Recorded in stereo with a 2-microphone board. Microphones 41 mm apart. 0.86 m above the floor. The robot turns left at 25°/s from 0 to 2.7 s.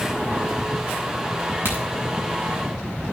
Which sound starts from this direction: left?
A crack, at 1.6 s.